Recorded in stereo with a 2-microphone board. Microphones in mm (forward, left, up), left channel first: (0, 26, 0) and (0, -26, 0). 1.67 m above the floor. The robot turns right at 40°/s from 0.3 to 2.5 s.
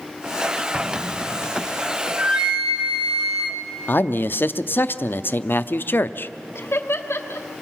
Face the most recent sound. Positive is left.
turn(degrees=50)  # may be behind; listen again after turning